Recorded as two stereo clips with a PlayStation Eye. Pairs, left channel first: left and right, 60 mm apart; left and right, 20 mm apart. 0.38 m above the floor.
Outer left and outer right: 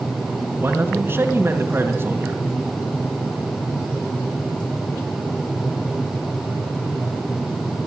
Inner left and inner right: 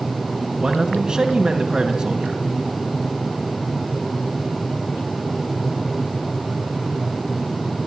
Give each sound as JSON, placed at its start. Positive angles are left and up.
{"t": 0.6, "sound": "a man speaking", "side_deg": -40, "distance_m": 3.0}